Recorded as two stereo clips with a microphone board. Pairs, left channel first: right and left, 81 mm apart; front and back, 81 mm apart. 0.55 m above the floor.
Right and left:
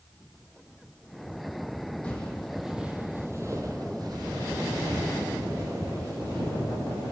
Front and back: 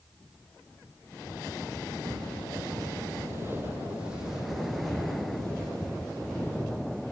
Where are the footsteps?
165° right, 1.2 m; by 7.1 s 75° left, 3.5 m.